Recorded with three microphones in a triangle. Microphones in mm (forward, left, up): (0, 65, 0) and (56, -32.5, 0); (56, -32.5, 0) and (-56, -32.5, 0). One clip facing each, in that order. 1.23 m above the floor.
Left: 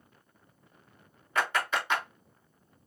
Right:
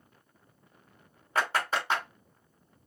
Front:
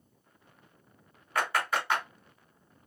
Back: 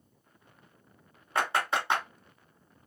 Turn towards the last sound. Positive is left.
turn(degrees=-115)